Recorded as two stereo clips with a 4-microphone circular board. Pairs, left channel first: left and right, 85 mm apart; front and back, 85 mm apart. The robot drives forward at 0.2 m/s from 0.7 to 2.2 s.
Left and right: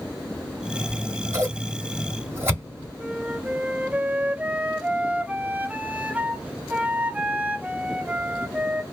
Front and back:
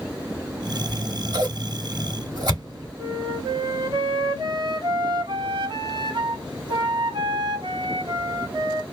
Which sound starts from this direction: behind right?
Scissors, at 0.9 s.